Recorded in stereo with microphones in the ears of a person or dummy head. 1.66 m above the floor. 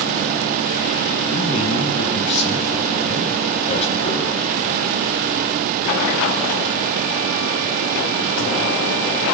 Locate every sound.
1.3 s a man speaking: 45° left (ahead or behind), 1.1 m